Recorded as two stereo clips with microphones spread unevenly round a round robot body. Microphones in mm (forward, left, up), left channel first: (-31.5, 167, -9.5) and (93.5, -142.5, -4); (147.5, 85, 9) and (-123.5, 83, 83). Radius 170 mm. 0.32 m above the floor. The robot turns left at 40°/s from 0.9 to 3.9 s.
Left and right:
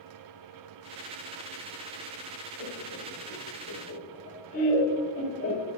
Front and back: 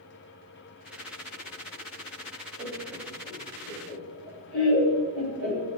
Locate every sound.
2.6 s laughter: 100° left, 6 m; by 5.7 s 45° left, 6 m